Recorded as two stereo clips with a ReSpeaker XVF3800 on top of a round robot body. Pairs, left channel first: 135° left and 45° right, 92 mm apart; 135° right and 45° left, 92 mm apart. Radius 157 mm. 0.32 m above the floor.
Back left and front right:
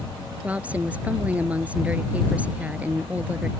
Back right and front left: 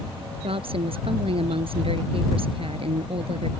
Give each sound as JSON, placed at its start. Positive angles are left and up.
{"t": 0.4, "sound": "a woman speaking", "azimuth_deg": 30}